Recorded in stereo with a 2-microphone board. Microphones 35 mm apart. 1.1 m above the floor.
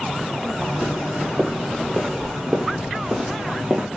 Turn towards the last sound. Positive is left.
turn(degrees=-20)  # may be behind; listen again after turning